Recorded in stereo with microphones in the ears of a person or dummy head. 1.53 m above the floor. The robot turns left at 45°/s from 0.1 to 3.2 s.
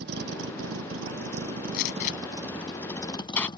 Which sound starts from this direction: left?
A gunshot, at 1.7 s.